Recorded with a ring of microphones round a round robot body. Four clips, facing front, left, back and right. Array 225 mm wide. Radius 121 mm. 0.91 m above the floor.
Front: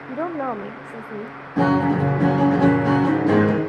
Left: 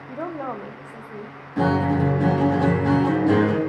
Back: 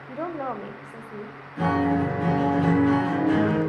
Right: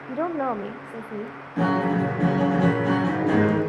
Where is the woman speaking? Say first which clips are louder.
Right 5 dB, front 5 dB; 45° right, 0.7 m.